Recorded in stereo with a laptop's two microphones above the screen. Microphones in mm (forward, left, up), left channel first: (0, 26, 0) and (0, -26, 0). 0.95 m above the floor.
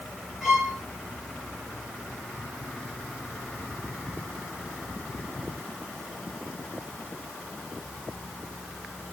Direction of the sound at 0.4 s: 5° right (ahead or behind).